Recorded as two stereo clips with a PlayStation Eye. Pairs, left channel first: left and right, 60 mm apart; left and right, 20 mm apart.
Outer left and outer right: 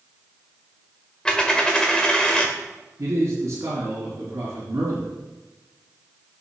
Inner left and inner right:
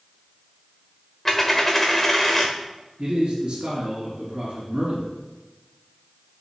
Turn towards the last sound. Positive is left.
turn(degrees=-60)  # may be behind; listen again after turning